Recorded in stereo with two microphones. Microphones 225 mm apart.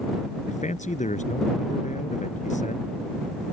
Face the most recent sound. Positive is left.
turn(degrees=35)  # may be behind; listen again after turning